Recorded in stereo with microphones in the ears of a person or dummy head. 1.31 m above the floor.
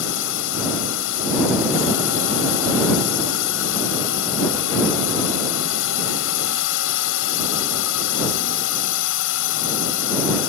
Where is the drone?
70° left (ahead or behind).